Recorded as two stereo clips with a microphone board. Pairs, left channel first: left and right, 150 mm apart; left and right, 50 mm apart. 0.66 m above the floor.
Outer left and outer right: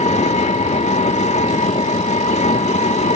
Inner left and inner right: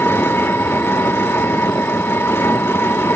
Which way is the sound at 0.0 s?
50° left (ahead or behind).